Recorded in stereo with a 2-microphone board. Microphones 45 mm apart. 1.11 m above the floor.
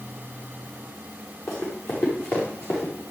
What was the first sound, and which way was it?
Running footsteps, 65° left (ahead or behind).